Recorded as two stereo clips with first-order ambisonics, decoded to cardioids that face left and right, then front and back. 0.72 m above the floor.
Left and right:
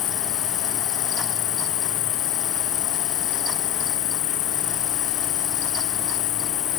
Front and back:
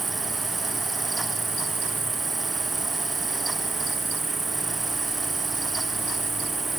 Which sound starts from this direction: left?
An insect, at 0.0 s.